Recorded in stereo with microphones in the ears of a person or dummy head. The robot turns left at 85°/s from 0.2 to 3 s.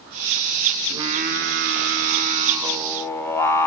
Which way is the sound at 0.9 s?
15° right.